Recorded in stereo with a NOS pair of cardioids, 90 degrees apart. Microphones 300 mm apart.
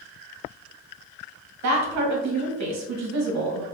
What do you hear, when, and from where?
1.6 s a woman speaking: 65° right, 1.0 m